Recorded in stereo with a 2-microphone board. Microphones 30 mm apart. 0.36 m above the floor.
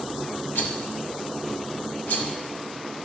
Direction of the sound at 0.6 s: 75° left (ahead or behind).